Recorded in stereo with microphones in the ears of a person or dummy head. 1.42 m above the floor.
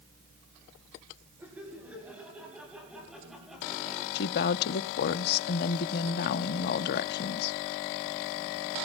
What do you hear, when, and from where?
1.4 s laughter: 10° right (ahead or behind), 10 m; by 4.0 s centre (ahead or behind), 8.5 m
4.2 s a woman speaking: 60° left (ahead or behind), 0.7 m